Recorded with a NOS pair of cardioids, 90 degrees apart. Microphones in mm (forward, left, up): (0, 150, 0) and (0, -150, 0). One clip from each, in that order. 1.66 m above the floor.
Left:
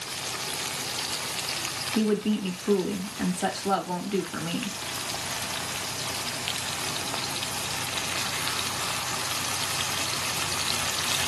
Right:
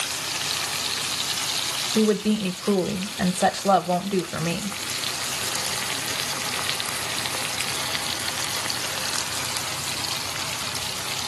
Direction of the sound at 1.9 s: 70° right.